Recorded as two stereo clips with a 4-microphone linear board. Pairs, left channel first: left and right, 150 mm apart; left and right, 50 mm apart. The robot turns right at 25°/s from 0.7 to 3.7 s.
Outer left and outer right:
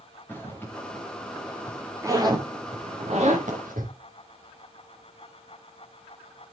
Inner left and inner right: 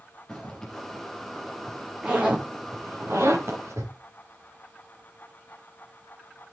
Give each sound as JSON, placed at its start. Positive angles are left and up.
{"t": 0.3, "sound": "a zipper", "side_deg": 15, "distance_m": 7.0}